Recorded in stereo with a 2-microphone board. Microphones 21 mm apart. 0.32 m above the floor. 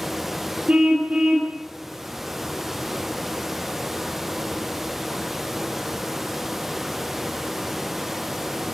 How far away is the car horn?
About 5.5 m.